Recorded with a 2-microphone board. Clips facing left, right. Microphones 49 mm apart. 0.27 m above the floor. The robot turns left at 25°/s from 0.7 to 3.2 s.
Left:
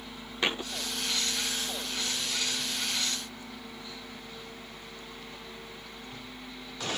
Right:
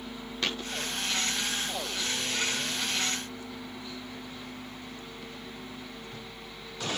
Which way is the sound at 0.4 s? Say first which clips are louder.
Left 3 dB; 15° left (ahead or behind).